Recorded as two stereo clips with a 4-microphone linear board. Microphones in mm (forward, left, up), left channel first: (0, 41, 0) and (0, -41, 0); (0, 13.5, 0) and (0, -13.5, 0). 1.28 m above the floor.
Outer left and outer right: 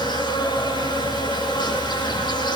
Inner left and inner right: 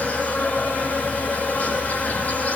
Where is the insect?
70° left (ahead or behind), 9 m.